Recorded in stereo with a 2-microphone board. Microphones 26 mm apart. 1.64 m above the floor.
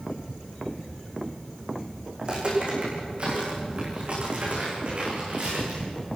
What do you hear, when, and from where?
2.2 s footsteps: 40° right (ahead or behind), 7 m; by 5.8 s 60° right (ahead or behind), 9 m